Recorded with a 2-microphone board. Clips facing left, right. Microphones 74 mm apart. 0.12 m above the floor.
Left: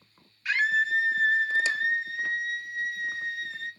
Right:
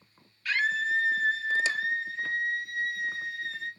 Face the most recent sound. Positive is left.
turn(degrees=5)  # may be behind; listen again after turning